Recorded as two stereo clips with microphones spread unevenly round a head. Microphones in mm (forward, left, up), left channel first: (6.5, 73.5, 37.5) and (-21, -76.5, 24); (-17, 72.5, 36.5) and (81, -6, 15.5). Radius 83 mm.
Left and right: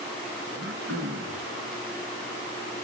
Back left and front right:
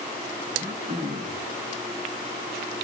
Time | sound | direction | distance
0.5 | throat clearing | 95° right | 2 m